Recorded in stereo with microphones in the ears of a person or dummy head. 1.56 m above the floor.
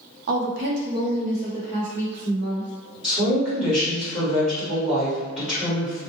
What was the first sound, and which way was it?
A woman speaking, 70° right (ahead or behind).